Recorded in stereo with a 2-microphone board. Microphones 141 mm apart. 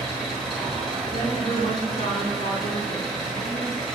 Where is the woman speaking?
70° left (ahead or behind), 1.9 m.